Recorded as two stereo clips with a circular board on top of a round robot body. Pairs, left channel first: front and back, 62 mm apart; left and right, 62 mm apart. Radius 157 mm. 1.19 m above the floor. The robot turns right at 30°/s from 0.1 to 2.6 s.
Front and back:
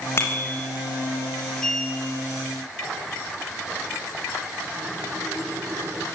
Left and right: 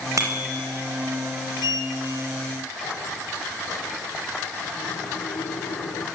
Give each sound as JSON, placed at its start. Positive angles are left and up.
{"t": 0.2, "sound": "a bicycle bell", "azimuth_deg": -50, "distance_m": 5.0}
{"t": 1.6, "sound": "a sliding door", "azimuth_deg": 80, "distance_m": 1.5}